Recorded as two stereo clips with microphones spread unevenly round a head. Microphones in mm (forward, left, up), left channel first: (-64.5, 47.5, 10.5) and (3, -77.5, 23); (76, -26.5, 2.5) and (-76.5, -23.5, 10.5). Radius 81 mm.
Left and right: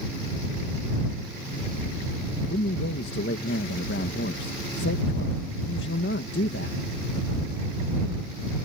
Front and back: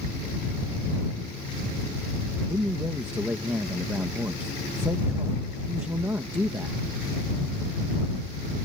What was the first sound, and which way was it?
A man speaking, 100° left.